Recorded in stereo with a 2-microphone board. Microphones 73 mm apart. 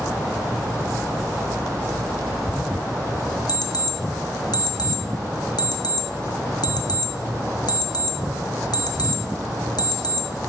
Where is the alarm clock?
70° left (ahead or behind), 0.6 m.